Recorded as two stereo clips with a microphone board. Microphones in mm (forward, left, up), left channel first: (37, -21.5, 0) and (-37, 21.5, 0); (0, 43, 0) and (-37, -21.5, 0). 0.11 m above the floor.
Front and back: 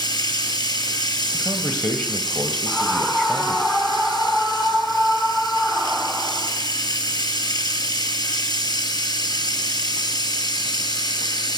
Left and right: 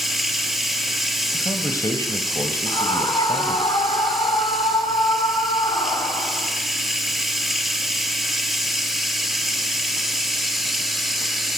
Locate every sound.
0.0 s running water: 35° right, 2 m
1.3 s a man speaking: 50° left, 2.5 m
2.7 s a scream: 50° left, 9 m